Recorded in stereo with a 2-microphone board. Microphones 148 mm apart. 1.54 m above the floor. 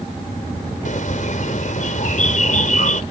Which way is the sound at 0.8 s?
60° left (ahead or behind).